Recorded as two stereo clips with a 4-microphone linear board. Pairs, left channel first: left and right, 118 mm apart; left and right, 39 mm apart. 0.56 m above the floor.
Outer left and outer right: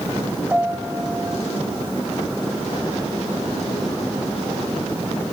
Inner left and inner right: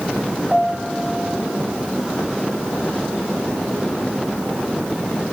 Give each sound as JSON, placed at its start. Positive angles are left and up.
{"t": 0.5, "sound": "a piano", "side_deg": -15, "distance_m": 2.5}